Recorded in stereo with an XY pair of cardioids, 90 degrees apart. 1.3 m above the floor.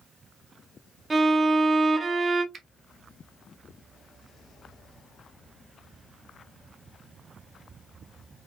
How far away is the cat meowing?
I don't hear a cat meowing.